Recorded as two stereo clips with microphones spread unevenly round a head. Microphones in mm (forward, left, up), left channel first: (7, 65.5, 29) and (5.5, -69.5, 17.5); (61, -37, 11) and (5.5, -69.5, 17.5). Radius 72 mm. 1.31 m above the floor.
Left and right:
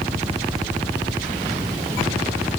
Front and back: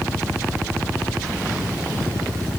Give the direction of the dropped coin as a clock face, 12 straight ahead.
No dropped coin in this recording.